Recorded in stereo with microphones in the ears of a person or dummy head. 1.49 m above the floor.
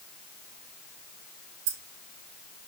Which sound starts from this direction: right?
Keys jangling, at 1.7 s.